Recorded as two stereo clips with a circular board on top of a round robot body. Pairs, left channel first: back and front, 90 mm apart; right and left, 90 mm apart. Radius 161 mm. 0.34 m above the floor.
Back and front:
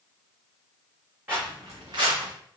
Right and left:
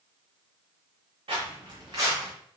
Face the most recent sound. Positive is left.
turn(degrees=20)